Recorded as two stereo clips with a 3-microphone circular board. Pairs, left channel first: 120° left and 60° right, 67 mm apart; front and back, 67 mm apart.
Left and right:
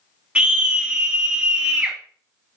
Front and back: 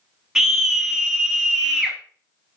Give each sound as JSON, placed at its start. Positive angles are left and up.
{"t": 0.3, "sound": "a scream", "azimuth_deg": -105, "distance_m": 1.2}